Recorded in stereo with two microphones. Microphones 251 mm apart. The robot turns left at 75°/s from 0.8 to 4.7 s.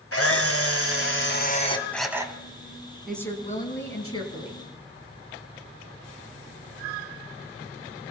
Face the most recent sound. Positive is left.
turn(degrees=60)